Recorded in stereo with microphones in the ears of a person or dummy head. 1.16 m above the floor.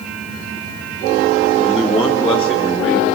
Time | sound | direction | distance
1.6 | a man speaking | centre (ahead or behind) | 2 m